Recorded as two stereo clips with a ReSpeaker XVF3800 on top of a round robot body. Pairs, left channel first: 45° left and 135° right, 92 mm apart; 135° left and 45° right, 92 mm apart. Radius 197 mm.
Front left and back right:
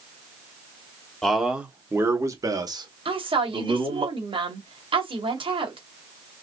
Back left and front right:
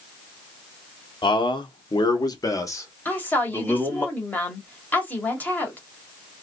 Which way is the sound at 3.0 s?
155° right.